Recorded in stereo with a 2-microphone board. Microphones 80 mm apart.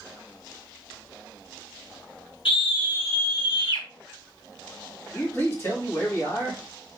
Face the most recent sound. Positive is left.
turn(degrees=30)  # may be behind; listen again after turning